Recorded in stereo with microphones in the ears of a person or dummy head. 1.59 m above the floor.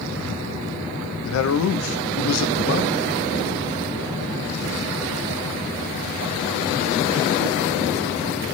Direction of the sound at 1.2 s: 80° left.